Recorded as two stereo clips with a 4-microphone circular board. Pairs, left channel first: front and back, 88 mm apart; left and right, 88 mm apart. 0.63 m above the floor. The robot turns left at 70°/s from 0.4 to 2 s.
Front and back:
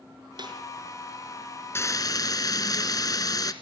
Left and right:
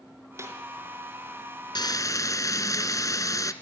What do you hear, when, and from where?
0.4 s a snare drum: 150° right, 5 m; by 0.6 s 160° right, 5 m
1.8 s frying: 60° left, 1.6 m; by 3.5 s 40° left, 1.6 m